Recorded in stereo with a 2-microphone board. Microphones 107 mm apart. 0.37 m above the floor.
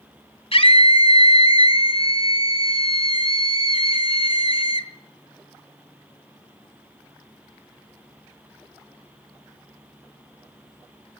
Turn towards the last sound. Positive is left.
turn(degrees=60)  # may be behind; listen again after turning